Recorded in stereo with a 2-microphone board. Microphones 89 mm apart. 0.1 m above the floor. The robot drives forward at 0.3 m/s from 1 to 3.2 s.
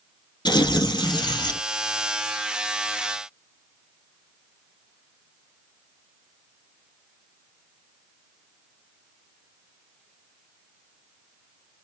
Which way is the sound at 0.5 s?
60° left (ahead or behind).